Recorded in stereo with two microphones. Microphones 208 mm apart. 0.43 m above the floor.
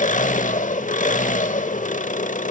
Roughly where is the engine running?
Left.